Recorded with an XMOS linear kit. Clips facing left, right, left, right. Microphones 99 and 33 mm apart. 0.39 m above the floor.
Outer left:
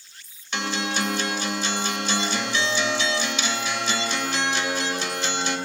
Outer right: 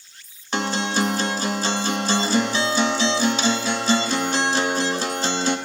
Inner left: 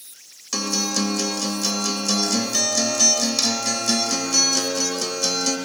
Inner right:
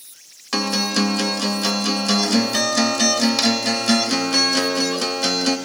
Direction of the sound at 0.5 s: 35° right (ahead or behind).